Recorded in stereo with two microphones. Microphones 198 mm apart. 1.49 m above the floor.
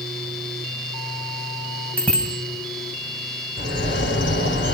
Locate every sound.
2.0 s a bicycle bell: 5° left (ahead or behind), 7 m
3.6 s a bird: 80° left, 6.5 m